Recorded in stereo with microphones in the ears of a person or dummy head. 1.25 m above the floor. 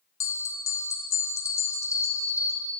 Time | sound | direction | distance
0.2 | a bell | 15° left (ahead or behind) | 0.7 m